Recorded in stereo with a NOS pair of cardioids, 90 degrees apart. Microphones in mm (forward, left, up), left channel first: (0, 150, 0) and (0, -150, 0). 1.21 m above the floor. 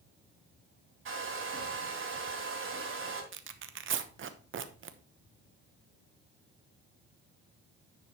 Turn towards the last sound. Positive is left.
turn(degrees=-45)